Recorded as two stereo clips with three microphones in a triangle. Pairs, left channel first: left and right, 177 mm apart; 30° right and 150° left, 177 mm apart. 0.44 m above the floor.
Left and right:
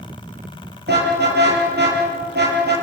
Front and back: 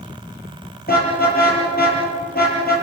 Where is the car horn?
65° right, 6.5 m.